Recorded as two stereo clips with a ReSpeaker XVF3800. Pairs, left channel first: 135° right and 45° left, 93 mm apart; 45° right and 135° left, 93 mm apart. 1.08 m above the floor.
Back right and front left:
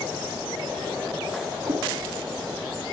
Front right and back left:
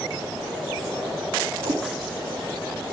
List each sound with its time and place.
1.6 s a cat meowing: 130° left, 3 m